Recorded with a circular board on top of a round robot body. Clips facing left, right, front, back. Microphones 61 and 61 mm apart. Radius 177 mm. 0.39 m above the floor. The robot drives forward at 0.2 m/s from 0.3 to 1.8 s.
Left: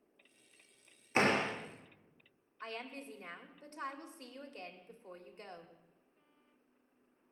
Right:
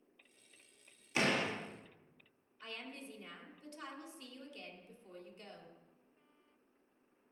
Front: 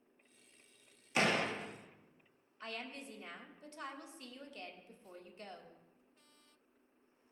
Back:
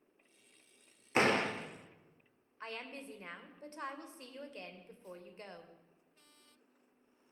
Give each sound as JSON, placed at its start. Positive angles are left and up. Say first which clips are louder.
{"t": 1.1, "sound": "a door slam", "louder": "left 3 dB, back 3 dB", "azimuth_deg": 135, "distance_m": 1.5}
{"t": 2.6, "sound": "a woman speaking", "louder": "left 4 dB, back 1 dB", "azimuth_deg": 130, "distance_m": 1.9}